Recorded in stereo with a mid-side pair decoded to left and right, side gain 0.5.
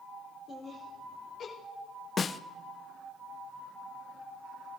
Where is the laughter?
45° left, 4.5 m; by 1.5 s 55° left, 3.5 m.